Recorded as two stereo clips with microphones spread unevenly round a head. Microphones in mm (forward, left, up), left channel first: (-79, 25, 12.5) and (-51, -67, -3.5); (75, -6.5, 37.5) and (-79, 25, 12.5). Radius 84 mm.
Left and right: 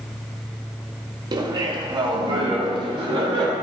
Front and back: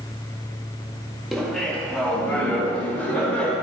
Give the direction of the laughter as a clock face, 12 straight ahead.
4 o'clock.